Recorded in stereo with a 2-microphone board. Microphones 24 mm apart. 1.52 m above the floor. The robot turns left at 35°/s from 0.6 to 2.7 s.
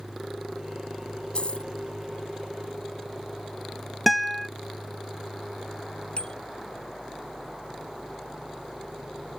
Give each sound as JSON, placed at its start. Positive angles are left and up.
{"t": 1.4, "sound": "a dropped coin", "side_deg": 45}
{"t": 4.1, "sound": "a guitar", "side_deg": 0}
{"t": 6.2, "sound": "a bicycle bell", "side_deg": 50}